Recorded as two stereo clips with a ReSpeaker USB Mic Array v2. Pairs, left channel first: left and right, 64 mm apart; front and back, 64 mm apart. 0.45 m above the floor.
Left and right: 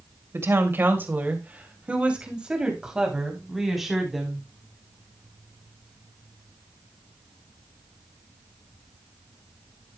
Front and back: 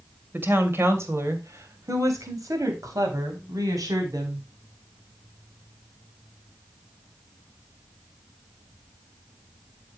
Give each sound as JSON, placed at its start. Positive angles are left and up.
{"t": 0.3, "sound": "a woman speaking", "azimuth_deg": -130, "distance_m": 2.0}